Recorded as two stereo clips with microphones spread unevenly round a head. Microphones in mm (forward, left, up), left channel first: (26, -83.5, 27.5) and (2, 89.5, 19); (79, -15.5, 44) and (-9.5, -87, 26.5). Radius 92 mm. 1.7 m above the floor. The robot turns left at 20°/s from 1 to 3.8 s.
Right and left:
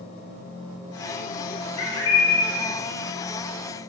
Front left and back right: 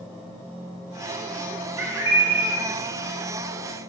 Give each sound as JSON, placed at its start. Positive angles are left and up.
{"t": 1.8, "sound": "a bird", "azimuth_deg": -70, "distance_m": 2.0}